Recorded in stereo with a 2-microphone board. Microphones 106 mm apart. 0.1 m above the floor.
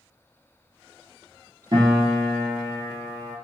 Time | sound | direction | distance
1.7 | a piano | 45° right (ahead or behind) | 1.5 m